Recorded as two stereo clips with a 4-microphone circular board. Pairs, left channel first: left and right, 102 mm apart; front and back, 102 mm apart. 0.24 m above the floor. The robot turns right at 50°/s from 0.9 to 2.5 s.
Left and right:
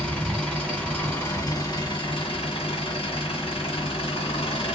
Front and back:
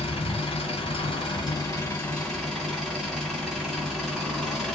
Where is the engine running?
10° left, 2 m; by 4.8 s 90° left, 2 m.